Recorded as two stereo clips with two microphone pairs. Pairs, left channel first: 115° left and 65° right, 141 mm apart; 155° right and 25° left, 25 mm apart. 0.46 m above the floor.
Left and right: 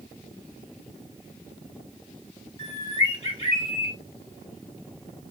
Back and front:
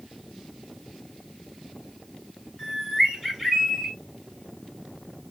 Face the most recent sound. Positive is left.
turn(degrees=90)